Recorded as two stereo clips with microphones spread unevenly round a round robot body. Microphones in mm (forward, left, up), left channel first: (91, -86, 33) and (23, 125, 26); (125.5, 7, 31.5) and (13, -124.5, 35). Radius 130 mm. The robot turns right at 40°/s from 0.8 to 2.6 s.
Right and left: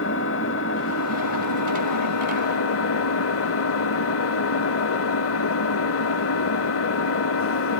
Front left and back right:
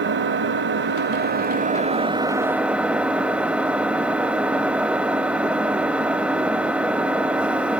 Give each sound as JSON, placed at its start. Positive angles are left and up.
{"t": 0.0, "sound": "an engine running", "azimuth_deg": -120, "distance_m": 1.0}